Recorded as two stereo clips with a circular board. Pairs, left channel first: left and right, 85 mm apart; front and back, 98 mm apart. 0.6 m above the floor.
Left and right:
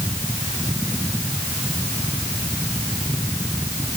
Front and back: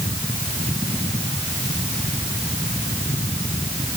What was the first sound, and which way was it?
Only background noise.